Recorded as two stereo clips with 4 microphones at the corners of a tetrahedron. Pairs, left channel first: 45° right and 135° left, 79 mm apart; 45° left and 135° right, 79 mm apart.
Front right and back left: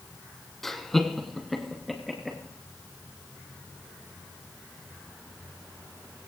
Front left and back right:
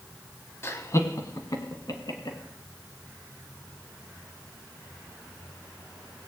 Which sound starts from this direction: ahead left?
Laughter, at 0.6 s.